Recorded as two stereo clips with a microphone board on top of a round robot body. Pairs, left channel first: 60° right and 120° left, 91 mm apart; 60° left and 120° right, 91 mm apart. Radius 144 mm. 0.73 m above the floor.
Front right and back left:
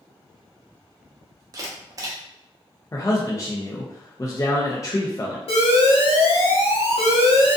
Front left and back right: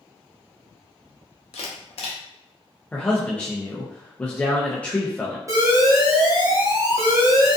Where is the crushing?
No crushing in this recording.